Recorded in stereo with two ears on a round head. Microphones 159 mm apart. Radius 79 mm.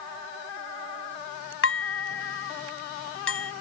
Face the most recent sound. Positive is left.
turn(degrees=80)